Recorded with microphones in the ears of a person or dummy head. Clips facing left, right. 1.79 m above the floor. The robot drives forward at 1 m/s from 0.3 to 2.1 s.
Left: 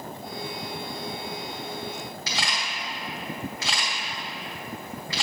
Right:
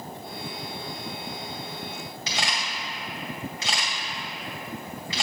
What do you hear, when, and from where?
2.3 s a camera shutter: 25° right (ahead or behind), 1.6 m